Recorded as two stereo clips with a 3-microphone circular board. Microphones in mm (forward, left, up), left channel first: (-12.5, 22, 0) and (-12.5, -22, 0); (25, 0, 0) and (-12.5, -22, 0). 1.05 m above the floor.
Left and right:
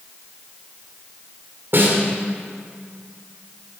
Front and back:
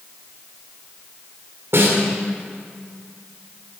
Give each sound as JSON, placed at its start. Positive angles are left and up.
{"t": 1.7, "sound": "a snare drum", "azimuth_deg": -125, "distance_m": 2.5}